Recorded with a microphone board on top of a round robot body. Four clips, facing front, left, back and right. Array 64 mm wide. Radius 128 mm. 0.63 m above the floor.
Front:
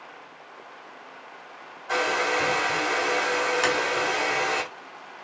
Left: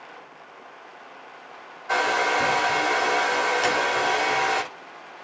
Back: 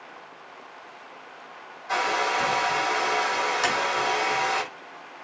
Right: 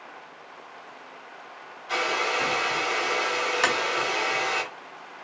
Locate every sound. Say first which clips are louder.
1.9 s a hair dryer: left 4 dB, even; 75° left, 1.8 m
3.6 s tapping: left 1 dB, front 1 dB; 80° right, 1.0 m